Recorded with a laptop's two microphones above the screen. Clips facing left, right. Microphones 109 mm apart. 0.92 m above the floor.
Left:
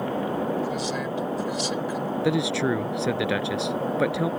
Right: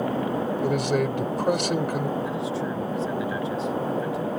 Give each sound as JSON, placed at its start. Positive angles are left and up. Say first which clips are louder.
{"t": 0.6, "sound": "a man speaking", "louder": "right 5 dB", "side_deg": -60}
{"t": 2.2, "sound": "a man speaking", "louder": "left 4 dB", "side_deg": 75}